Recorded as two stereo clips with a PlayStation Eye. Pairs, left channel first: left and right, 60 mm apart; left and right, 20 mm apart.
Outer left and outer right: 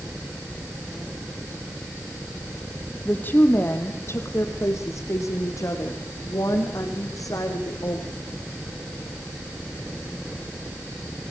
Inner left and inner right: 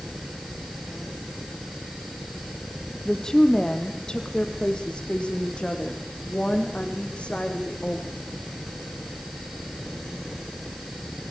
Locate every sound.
3.0 s a woman speaking: 30° left (ahead or behind), 4 m; by 8.1 s 70° left (ahead or behind), 8.5 m